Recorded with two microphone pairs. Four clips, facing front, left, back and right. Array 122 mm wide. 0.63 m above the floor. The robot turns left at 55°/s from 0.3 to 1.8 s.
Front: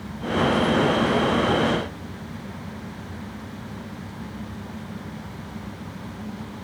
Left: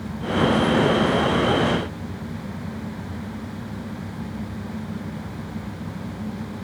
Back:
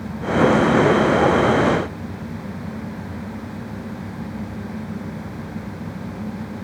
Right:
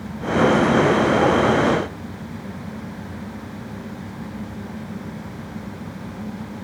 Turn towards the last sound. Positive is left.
No sound to turn to.